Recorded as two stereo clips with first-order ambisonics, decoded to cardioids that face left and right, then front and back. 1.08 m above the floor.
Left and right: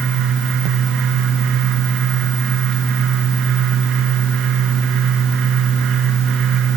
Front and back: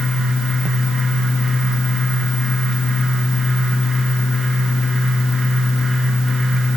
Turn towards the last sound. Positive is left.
No sound to turn to.